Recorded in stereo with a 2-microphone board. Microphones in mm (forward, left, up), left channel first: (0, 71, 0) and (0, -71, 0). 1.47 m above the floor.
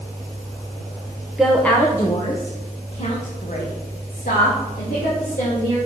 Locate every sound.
1.4 s a woman speaking: 5° right (ahead or behind), 0.8 m; by 5.8 s 70° left (ahead or behind), 2.5 m